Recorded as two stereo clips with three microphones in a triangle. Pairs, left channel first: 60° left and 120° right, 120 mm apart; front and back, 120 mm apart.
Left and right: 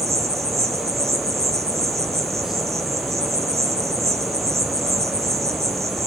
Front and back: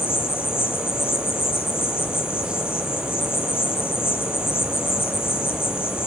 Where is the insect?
65° right, 1.3 m.